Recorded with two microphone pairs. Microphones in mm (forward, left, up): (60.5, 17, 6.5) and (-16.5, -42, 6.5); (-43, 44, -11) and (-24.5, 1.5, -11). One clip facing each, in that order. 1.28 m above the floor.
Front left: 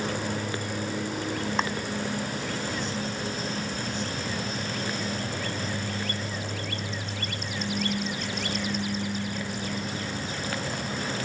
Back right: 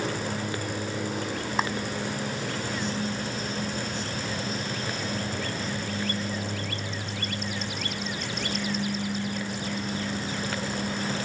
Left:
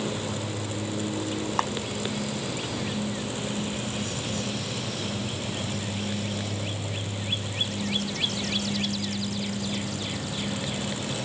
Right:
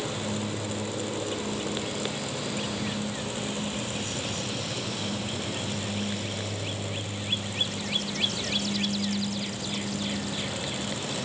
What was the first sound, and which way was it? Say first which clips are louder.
A clap: back right 1 dB, left 6 dB; 130° left.